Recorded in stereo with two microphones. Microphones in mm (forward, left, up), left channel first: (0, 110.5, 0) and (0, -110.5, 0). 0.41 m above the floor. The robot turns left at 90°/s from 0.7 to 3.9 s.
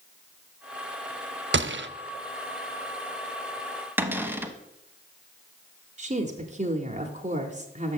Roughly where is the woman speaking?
Right.